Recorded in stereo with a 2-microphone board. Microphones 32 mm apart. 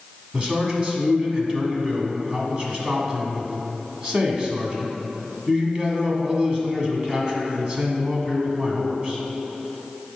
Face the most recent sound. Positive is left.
turn(degrees=-30)  # may be behind; listen again after turning